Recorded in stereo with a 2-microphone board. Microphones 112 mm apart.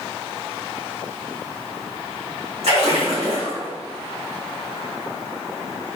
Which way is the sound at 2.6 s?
75° right (ahead or behind).